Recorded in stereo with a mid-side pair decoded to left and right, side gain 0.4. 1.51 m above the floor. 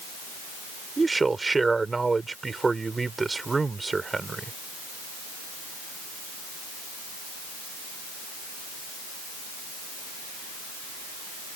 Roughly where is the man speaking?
Ahead right.